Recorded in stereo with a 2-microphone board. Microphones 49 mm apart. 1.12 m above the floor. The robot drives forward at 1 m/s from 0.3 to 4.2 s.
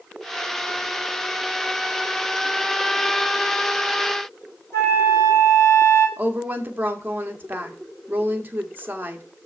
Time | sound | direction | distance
4.7 | a flute | 70° left (ahead or behind) | 5.5 m
6.2 | a woman speaking | 40° right (ahead or behind) | 2.0 m